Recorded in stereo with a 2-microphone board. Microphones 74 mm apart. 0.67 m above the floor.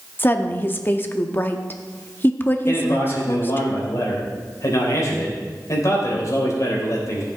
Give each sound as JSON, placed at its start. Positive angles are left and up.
{"t": 0.2, "sound": "a woman speaking", "side_deg": 30, "distance_m": 0.8}
{"t": 2.7, "sound": "a man speaking", "side_deg": 50, "distance_m": 3.0}